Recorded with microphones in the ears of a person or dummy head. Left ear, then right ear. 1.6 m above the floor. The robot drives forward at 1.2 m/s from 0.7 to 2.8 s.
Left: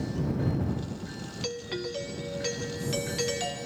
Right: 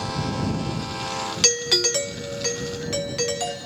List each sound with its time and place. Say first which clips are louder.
1.4 s a doorbell: right 14 dB; 60° right (ahead or behind), 0.6 m; by 3.6 s 25° right (ahead or behind), 1.4 m